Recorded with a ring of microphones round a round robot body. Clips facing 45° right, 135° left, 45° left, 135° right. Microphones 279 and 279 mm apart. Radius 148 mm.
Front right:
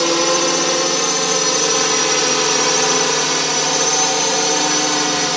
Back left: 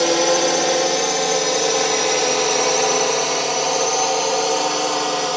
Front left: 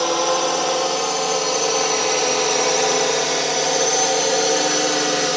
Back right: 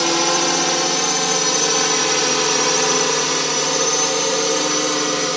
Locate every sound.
0.0 s a drone: 110° right; by 5.4 s 55° right